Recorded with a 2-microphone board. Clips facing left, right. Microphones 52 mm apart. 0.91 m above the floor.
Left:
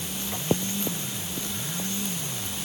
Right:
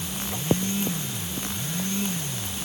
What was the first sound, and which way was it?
Only background noise.